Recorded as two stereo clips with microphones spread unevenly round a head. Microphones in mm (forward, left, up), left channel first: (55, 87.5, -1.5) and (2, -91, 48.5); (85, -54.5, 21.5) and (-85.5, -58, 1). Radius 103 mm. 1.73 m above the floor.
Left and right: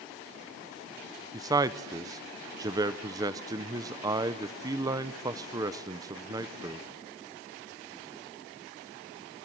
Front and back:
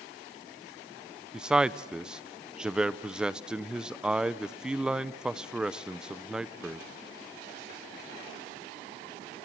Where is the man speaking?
85° right, 0.6 m.